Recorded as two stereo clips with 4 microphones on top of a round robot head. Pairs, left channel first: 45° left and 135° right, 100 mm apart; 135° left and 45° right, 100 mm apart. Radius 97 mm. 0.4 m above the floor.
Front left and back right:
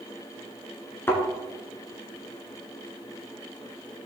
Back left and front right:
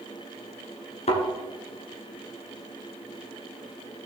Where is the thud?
115° left, 1.8 m.